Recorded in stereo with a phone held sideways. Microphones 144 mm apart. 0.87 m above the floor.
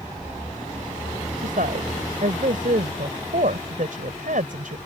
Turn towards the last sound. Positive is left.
turn(degrees=-70)  # may be behind; listen again after turning